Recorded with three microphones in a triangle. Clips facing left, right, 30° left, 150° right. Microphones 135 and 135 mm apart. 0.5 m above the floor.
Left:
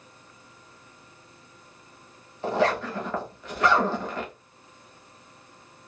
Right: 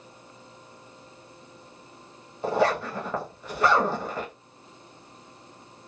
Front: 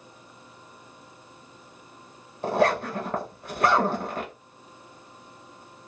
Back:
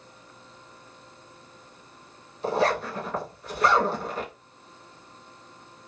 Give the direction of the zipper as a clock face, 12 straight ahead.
12 o'clock.